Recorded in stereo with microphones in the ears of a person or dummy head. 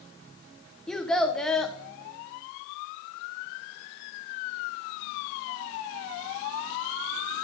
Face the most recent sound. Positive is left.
turn(degrees=0)  # may be behind; listen again after turning